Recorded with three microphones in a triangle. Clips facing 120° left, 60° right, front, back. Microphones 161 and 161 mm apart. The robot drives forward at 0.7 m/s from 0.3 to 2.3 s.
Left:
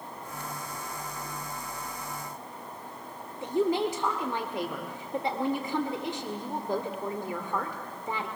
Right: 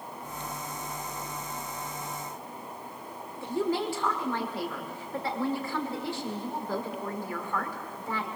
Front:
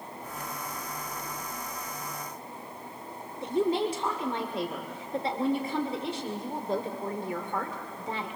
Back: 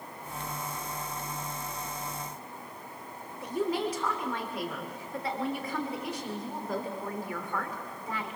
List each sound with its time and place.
3.4 s a woman speaking: 55° left, 1.9 m